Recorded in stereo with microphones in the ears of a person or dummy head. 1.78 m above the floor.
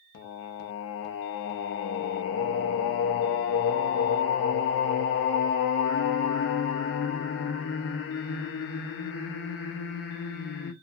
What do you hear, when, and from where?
0.1 s singing: 55° left (ahead or behind), 0.6 m